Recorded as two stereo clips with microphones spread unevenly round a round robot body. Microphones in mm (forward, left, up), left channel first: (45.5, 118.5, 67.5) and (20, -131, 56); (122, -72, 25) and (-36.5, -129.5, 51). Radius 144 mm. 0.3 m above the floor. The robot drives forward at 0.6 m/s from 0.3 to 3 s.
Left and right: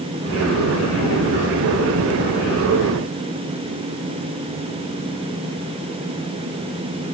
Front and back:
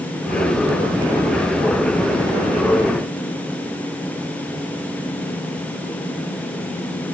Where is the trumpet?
No trumpet in this recording.